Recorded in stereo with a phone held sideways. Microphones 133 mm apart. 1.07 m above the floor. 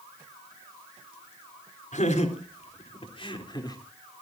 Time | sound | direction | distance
1.9 | laughter | 60° left (ahead or behind) | 3.5 m